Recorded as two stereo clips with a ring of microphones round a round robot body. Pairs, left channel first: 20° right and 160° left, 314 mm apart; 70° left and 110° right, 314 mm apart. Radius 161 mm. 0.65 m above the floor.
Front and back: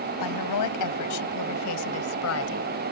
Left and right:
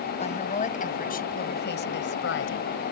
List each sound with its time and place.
0.2 s a woman speaking: straight ahead; by 2.9 s 25° left